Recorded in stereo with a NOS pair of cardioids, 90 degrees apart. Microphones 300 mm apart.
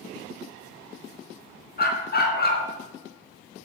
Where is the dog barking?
30° left, 4 m.